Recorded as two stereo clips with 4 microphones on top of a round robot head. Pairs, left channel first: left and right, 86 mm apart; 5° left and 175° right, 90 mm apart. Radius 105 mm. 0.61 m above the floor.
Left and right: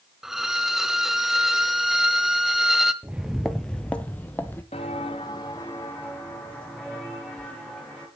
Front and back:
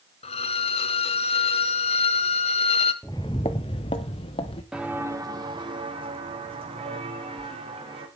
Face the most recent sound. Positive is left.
turn(degrees=175)